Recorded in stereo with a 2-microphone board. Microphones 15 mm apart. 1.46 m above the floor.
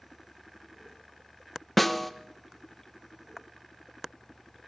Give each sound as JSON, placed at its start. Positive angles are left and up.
{"t": 1.8, "sound": "a snare drum", "side_deg": 0, "distance_m": 1.2}